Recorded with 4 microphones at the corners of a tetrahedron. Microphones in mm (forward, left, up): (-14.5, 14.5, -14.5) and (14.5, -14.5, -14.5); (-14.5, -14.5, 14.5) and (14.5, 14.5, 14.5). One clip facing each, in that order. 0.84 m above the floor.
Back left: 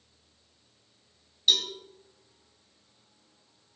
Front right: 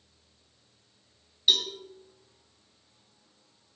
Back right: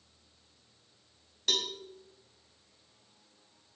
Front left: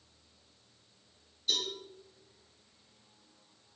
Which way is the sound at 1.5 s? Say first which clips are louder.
Even, back right 2 dB; 125° right.